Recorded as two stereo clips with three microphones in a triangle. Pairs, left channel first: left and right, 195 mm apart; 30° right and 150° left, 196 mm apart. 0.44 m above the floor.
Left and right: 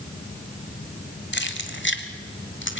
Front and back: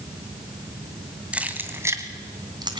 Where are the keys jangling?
65° left, 1.7 m; by 2.8 s 85° left, 2 m.